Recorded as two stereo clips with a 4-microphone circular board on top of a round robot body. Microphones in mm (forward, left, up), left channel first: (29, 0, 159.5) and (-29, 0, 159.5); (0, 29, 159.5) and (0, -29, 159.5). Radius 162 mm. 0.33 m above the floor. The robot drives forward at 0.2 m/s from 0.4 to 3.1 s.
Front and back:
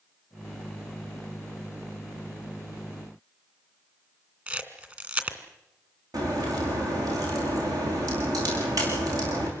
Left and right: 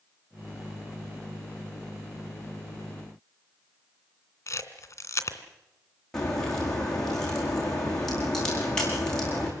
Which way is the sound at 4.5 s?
120° left.